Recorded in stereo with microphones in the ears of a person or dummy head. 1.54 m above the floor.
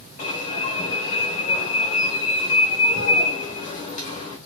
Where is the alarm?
40° left (ahead or behind), 0.9 m.